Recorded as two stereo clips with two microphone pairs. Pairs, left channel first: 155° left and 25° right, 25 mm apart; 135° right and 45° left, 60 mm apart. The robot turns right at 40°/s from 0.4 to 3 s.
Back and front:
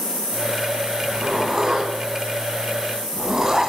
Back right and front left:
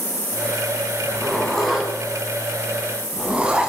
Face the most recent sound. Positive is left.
turn(degrees=15)